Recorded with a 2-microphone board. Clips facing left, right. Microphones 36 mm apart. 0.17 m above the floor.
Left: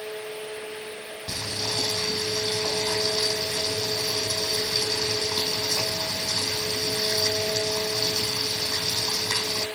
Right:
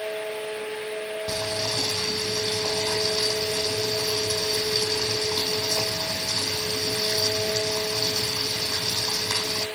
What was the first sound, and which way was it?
Boiling, 20° right (ahead or behind).